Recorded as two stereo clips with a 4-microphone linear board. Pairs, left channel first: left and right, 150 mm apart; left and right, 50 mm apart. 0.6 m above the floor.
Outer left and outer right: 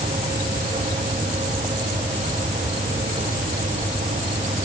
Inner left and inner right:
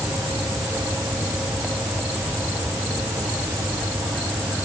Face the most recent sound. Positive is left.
No sound to turn to.